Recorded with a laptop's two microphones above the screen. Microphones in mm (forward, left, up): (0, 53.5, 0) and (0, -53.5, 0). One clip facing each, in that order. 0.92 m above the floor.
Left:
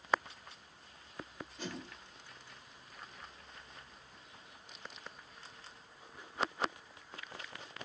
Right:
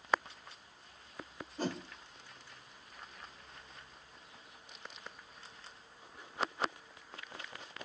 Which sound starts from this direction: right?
A whoosh, at 1.6 s.